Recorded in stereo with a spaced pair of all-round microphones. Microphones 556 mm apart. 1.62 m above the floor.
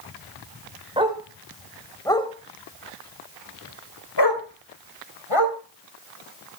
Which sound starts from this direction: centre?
A dog barking, at 1.0 s.